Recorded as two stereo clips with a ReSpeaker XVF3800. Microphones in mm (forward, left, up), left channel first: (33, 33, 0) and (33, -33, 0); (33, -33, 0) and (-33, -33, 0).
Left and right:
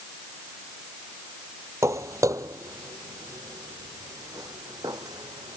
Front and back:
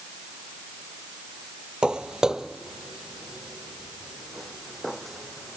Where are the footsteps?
105° right; by 5.6 s 90° right.